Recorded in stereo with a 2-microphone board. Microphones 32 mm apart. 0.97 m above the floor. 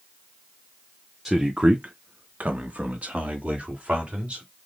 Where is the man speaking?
5° right (ahead or behind), 0.7 m; by 4.4 s 40° right (ahead or behind), 2.5 m.